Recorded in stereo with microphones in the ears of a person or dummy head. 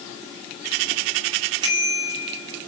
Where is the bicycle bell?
30° right (ahead or behind), 6.5 m.